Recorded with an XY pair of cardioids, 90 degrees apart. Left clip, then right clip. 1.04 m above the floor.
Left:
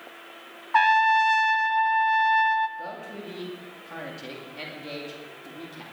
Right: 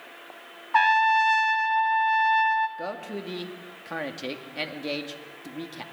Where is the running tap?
No running tap in this recording.